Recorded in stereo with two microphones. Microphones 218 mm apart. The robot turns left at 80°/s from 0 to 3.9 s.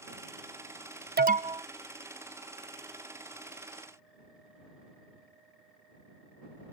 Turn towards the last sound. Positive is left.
turn(degrees=15)